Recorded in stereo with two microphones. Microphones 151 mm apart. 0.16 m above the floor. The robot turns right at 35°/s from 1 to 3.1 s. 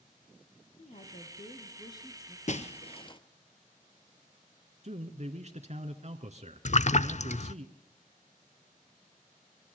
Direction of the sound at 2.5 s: 55° left (ahead or behind).